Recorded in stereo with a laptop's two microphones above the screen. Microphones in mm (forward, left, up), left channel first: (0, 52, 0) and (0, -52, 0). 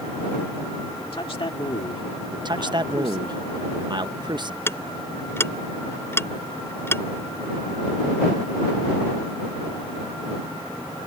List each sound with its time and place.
1.0 s a man speaking: 60° left (ahead or behind)
2.3 s a man speaking: 45° right (ahead or behind)
4.7 s ticking: 25° left (ahead or behind)